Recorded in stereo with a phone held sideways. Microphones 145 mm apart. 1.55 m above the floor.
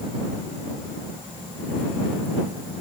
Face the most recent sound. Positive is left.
No sound to turn to.